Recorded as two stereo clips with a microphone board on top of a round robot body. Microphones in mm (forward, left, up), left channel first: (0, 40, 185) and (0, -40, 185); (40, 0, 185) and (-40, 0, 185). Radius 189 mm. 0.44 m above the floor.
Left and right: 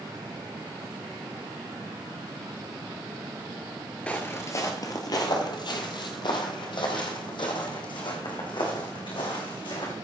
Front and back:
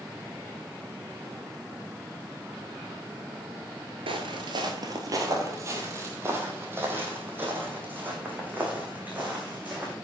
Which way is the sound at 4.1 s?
165° left.